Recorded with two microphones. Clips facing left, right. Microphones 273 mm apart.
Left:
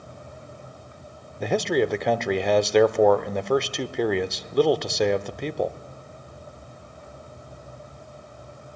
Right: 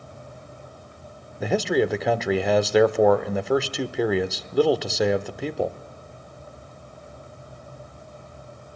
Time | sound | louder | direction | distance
1.4 | a man speaking | right 1 dB | 5° right (ahead or behind) | 0.9 m